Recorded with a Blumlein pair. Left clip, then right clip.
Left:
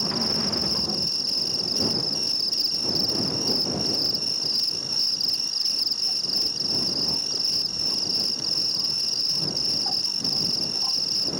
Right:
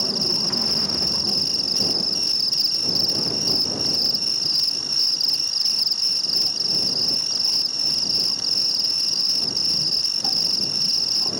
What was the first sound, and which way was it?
An insect, 15° right.